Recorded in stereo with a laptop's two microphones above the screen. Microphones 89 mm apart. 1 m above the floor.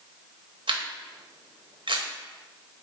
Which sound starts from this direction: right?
A camera shutter, at 0.7 s.